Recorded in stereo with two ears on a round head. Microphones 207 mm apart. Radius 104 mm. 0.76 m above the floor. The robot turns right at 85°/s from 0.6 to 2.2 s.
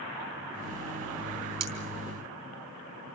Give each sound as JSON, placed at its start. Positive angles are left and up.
{"t": 1.6, "sound": "cutlery clinking", "side_deg": -85, "distance_m": 4.5}